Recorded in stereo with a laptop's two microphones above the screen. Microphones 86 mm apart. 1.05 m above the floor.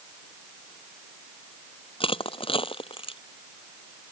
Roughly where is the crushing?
Left.